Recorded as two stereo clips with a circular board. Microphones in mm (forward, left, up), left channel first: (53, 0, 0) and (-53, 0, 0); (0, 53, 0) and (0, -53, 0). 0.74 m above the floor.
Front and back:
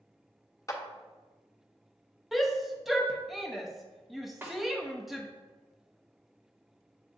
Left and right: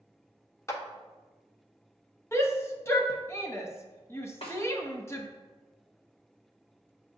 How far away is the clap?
About 0.6 m.